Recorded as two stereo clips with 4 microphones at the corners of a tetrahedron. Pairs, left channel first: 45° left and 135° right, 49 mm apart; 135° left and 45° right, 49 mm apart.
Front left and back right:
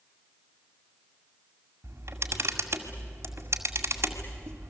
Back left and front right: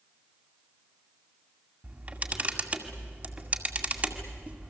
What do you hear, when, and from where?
1.8 s a camera shutter: 100° right, 2 m